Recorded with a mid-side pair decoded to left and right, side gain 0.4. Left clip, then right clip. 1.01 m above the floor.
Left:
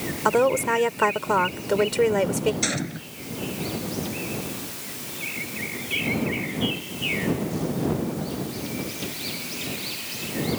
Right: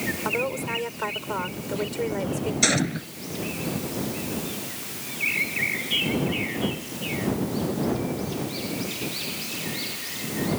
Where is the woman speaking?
65° left.